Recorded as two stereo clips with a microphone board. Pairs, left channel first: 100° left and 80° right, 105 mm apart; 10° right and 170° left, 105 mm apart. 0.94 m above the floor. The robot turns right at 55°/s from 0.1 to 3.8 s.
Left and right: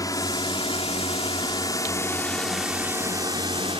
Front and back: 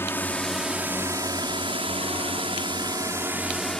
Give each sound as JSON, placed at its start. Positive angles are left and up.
{"t": 0.0, "sound": "a drone", "azimuth_deg": 55}